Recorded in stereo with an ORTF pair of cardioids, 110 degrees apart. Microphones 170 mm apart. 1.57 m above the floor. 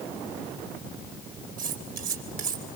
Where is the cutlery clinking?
60° right, 3.5 m.